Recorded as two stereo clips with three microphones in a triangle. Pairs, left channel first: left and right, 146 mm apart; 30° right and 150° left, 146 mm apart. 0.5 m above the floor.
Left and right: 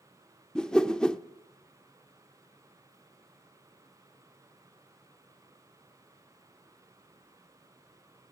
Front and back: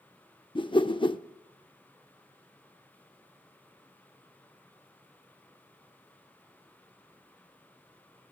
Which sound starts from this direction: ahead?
A whoosh, at 0.6 s.